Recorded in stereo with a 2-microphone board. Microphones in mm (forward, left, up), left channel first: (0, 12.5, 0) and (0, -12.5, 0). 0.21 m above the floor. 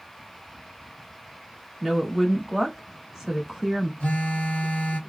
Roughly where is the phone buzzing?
Left.